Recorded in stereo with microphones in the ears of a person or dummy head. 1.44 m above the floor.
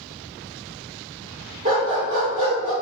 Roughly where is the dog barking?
Centre.